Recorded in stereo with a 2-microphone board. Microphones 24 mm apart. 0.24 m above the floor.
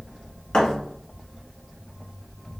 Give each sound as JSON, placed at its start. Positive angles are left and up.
{"t": 0.5, "sound": "a thud", "side_deg": 40, "distance_m": 1.1}